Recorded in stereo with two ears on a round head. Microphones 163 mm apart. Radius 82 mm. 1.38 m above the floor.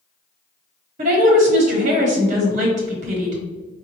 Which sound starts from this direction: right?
A woman speaking, at 1.0 s.